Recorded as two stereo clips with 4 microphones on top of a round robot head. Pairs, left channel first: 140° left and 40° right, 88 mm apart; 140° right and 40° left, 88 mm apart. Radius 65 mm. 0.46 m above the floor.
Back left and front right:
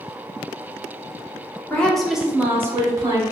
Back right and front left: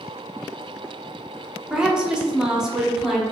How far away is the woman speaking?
About 0.7 m.